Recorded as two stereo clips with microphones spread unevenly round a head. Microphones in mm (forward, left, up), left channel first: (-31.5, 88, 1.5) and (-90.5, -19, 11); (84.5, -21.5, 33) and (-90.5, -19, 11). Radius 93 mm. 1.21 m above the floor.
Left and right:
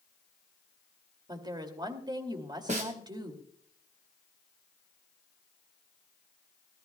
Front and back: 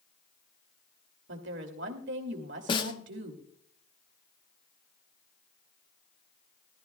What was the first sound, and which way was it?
A woman speaking, 175° right.